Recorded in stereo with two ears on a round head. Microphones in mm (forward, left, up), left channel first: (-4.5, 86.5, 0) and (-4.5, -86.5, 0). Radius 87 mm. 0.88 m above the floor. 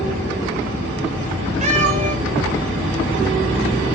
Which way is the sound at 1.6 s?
35° right (ahead or behind).